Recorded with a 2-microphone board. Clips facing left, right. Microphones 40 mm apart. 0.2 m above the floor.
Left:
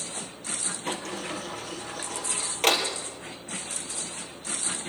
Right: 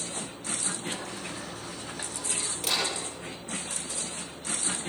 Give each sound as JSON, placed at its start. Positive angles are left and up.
{"t": 0.9, "sound": "a sliding door", "side_deg": 60, "distance_m": 4.5}